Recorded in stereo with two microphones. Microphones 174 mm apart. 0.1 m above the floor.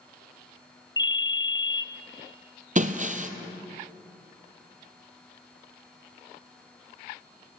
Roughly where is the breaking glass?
Right.